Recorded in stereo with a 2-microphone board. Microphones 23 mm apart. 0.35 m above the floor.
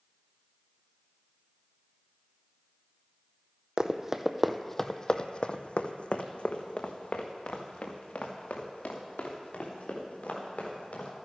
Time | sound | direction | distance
3.8 | running footsteps | 30° right (ahead or behind) | 0.8 m